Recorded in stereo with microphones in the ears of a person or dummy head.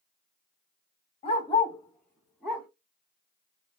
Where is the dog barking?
35° left (ahead or behind), 0.9 m; by 2.7 s 5° right (ahead or behind), 1.9 m.